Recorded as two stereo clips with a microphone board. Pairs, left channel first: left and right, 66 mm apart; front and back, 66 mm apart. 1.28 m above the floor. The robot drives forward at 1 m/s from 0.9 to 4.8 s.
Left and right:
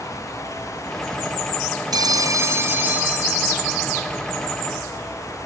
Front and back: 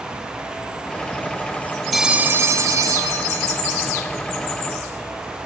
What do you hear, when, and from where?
1.9 s a phone ringing: 90° right; by 4.1 s 165° right